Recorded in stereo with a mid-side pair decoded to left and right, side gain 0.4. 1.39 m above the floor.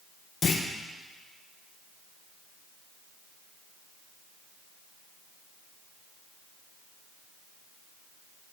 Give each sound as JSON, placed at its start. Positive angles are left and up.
{"t": 0.4, "sound": "a clunk", "azimuth_deg": 45, "distance_m": 0.9}